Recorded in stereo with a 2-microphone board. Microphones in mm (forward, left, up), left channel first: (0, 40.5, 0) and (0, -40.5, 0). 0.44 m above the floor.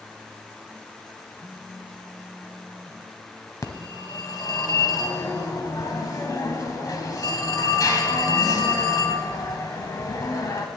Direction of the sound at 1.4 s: 20° left (ahead or behind).